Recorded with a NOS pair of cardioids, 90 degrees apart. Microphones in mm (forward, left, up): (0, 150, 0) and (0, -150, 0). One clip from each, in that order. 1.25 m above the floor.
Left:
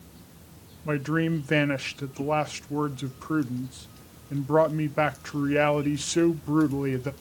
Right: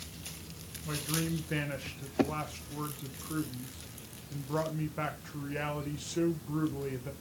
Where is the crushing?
I don't hear crushing.